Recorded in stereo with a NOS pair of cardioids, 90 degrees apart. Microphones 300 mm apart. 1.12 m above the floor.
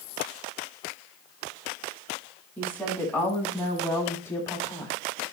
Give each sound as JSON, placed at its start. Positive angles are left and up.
{"t": 2.6, "sound": "a woman speaking", "azimuth_deg": 5, "distance_m": 8.5}